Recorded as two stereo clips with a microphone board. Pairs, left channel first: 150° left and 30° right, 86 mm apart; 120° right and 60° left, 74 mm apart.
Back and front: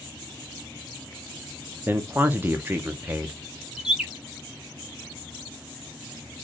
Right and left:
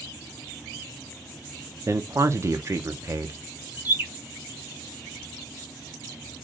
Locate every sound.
1.9 s a man speaking: 30° left, 0.7 m
3.8 s a bird: 45° left, 0.9 m